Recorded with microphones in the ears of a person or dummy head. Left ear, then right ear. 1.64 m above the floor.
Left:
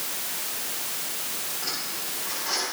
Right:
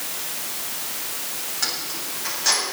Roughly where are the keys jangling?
Right.